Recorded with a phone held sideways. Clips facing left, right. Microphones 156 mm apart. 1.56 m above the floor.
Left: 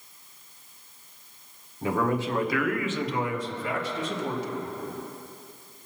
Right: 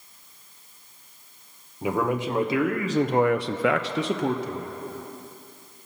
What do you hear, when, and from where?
1.8 s a man speaking: 10° right (ahead or behind), 1.5 m; by 4.7 s 45° right (ahead or behind), 1.1 m